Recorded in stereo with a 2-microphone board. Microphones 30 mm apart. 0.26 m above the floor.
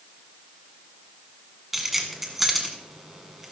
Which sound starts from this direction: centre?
Keys jangling, at 1.7 s.